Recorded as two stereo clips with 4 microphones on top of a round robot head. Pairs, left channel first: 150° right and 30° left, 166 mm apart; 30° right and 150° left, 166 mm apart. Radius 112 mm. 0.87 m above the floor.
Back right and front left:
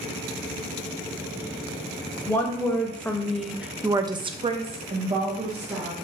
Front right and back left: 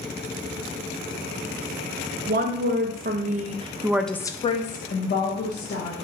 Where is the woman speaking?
135° left, 1.2 m; by 5.9 s 25° right, 1.3 m.